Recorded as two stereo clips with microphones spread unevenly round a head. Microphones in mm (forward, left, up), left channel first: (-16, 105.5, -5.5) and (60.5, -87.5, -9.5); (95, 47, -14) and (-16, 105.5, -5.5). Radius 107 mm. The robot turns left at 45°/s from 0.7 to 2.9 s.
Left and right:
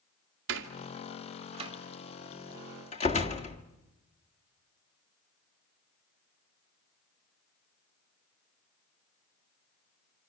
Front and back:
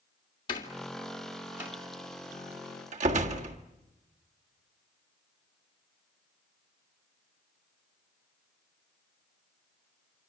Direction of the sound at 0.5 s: 90° right.